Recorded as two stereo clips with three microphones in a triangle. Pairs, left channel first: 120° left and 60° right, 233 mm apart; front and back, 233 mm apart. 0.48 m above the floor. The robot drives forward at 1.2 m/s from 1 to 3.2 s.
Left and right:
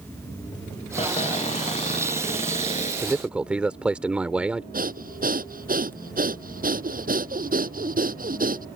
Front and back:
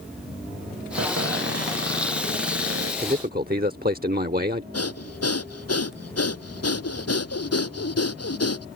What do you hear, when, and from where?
1.0 s a cupboard door: straight behind
3.0 s a man speaking: 130° right; by 4.6 s 145° right
4.7 s breathing: 5° right